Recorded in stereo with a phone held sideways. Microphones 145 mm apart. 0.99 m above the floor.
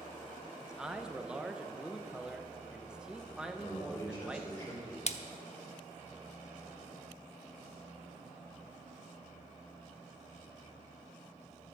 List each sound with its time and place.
0.6 s a man speaking: 5° right (ahead or behind), 0.8 m
3.5 s a man speaking: 20° left (ahead or behind), 4 m
5.1 s a splash: 50° left (ahead or behind), 0.7 m